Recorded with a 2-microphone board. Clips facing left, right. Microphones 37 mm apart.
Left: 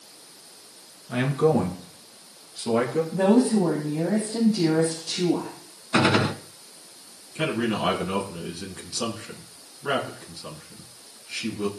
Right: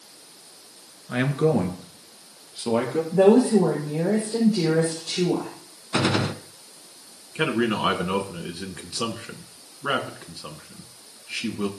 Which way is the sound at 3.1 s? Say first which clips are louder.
Right 4 dB; 70° right (ahead or behind).